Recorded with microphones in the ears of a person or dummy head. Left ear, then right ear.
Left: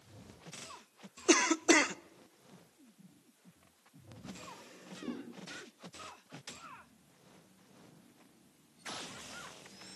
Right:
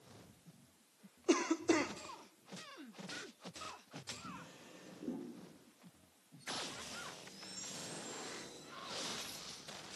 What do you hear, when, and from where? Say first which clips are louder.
1.3 s a cough: left 7 dB; 40° left (ahead or behind), 0.6 m
4.2 s a drawer: left 2 dB; 60° left (ahead or behind), 9 m